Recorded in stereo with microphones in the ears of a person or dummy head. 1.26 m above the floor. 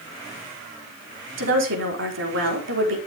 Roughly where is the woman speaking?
Right.